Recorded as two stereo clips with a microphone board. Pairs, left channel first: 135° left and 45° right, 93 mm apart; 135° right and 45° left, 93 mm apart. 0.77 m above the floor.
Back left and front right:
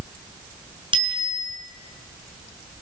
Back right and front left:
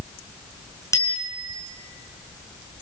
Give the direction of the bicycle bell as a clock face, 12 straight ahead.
3 o'clock.